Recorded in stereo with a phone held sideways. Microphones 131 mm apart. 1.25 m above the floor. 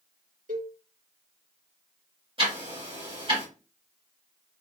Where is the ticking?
40° right (ahead or behind), 2.5 m.